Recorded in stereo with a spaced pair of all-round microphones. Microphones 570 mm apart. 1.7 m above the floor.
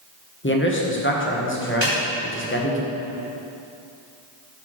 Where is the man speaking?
20° left (ahead or behind), 1.0 m.